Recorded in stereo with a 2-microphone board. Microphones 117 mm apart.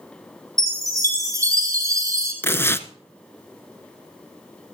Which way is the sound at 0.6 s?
30° right (ahead or behind).